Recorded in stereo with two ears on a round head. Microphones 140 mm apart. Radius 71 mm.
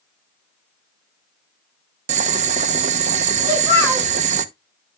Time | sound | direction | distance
2.1 | boiling | 50° right (ahead or behind) | 0.8 m
3.5 | a child speaking | 15° left (ahead or behind) | 7.5 m